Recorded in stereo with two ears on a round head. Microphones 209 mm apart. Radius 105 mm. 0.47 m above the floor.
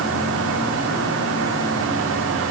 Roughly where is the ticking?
I don't hear ticking.